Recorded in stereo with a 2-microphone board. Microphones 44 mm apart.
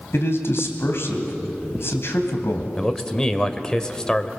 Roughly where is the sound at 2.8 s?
Centre.